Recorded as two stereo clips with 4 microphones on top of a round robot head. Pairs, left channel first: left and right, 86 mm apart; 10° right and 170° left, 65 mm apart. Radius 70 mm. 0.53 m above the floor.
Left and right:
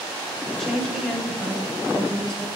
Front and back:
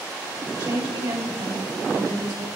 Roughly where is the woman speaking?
Behind.